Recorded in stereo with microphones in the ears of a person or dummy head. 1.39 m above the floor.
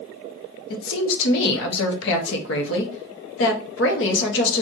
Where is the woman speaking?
70° left (ahead or behind), 0.8 m.